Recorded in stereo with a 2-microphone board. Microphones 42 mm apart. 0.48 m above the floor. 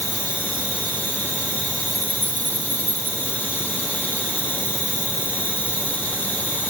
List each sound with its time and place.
0.0 s an insect: 45° left (ahead or behind), 4 m